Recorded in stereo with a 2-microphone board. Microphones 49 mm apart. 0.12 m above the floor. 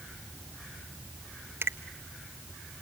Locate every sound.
1.6 s a finger snap: 55° right (ahead or behind), 1.6 m